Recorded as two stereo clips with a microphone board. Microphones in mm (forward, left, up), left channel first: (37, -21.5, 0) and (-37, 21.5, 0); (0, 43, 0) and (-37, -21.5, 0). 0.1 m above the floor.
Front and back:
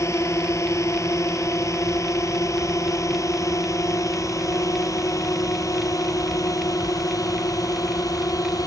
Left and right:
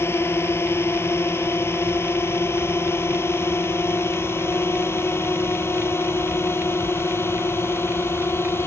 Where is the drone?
15° left; by 8.7 s 10° left.